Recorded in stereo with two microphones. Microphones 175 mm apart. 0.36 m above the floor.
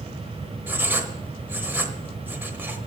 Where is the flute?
I don't hear a flute.